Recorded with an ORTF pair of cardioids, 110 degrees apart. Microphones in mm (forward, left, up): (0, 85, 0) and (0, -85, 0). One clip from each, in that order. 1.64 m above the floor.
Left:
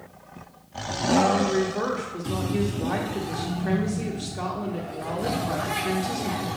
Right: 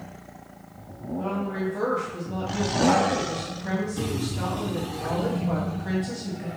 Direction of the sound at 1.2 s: 25° left.